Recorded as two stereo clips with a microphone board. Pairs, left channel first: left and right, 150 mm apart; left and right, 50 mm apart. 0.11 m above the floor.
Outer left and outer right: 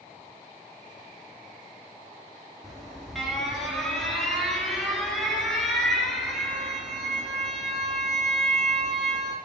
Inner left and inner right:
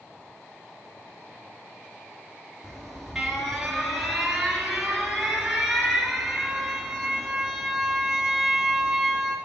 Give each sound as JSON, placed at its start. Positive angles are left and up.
{"t": 2.6, "sound": "an alarm", "side_deg": 0, "distance_m": 3.0}